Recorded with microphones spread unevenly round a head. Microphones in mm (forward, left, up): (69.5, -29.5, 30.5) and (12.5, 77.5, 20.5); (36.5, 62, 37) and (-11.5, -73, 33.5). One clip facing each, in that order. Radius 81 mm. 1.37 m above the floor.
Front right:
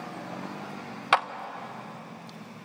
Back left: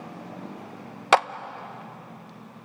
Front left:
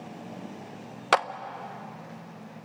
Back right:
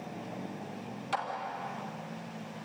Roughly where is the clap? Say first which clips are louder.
Back left 5 dB, front left 10 dB; left.